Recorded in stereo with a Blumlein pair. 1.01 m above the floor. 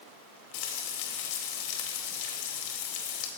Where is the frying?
45° left, 2 m.